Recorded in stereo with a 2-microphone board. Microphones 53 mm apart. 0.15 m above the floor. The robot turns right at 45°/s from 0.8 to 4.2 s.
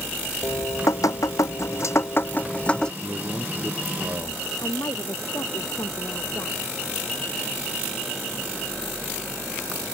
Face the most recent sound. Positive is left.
turn(degrees=85)